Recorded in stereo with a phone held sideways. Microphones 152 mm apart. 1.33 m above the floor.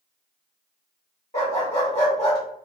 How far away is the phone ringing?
No phone ringing in this recording.